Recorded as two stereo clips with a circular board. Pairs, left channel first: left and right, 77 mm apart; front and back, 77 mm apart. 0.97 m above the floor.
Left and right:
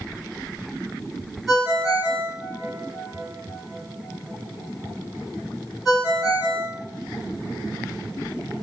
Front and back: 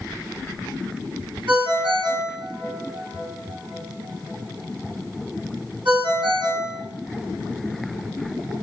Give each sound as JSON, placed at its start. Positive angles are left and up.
{"t": 1.5, "sound": "a ringtone", "azimuth_deg": 180, "distance_m": 2.0}